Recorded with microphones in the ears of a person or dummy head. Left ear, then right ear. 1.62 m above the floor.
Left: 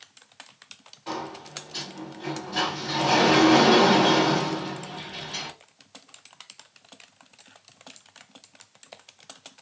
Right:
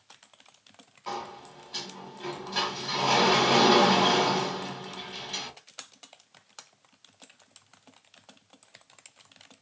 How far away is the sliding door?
About 1.5 m.